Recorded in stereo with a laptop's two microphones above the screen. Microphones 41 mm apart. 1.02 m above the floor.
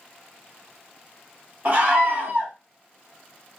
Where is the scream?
45° right (ahead or behind), 1.9 m.